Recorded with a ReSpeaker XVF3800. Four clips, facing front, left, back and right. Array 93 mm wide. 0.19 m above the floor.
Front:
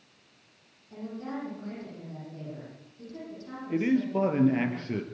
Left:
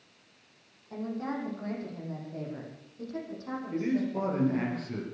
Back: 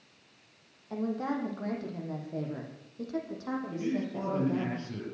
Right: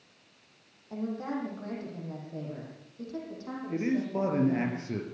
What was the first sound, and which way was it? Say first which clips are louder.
A woman speaking: right 1 dB, back 5 dB; 170° right.